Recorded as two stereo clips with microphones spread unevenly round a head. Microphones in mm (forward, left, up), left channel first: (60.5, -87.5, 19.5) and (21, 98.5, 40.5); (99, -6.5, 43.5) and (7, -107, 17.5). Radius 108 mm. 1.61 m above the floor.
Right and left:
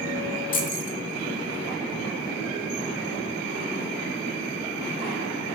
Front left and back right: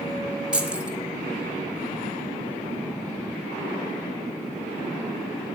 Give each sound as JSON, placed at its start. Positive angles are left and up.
{"t": 0.5, "sound": "keys jangling", "azimuth_deg": -40, "distance_m": 0.9}